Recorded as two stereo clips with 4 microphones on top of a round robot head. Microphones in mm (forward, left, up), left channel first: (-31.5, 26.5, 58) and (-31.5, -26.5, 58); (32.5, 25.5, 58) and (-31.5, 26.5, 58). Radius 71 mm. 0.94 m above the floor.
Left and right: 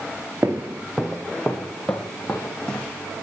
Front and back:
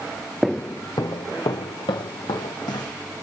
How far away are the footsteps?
About 0.9 m.